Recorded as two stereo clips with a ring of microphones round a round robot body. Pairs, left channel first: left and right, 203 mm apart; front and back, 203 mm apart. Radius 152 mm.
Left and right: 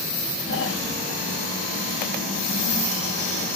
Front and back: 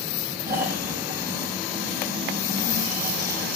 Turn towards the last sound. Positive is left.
turn(degrees=135)